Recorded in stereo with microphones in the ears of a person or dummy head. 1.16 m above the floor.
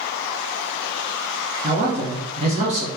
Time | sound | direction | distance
1.6 | a man speaking | 30° right (ahead or behind) | 1.0 m